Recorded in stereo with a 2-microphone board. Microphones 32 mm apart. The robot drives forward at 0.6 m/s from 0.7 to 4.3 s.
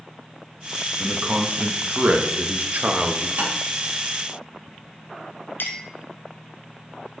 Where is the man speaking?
40° right (ahead or behind), 1.3 m; by 3.3 s 45° right (ahead or behind), 1.2 m.